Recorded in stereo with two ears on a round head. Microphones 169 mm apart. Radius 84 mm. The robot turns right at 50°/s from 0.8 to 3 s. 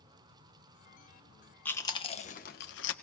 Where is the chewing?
10° left (ahead or behind), 1.2 m; by 2.9 s 70° left (ahead or behind), 1.2 m.